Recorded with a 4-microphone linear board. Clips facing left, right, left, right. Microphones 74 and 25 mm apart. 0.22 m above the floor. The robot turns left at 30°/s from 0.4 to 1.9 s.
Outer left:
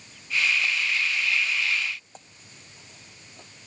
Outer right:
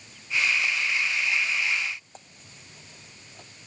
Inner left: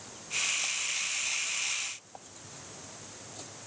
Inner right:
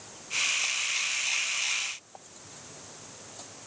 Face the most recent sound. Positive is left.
No sound to turn to.